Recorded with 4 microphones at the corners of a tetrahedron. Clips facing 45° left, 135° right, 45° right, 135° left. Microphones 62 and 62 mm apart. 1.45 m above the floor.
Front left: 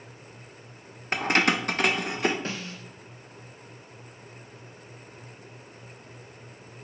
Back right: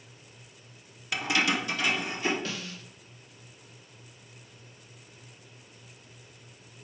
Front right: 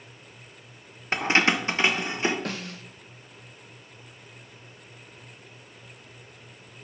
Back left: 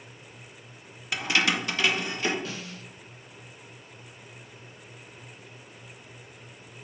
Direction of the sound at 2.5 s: 10° right.